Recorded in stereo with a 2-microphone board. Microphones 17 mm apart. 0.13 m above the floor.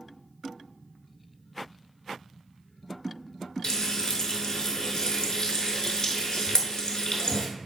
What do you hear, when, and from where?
3.6 s frying: 40° left (ahead or behind), 0.6 m